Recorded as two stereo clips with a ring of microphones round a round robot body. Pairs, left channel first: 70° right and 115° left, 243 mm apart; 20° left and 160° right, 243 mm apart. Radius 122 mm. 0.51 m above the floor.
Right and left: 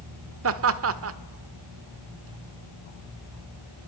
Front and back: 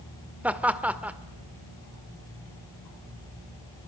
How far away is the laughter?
About 1.3 m.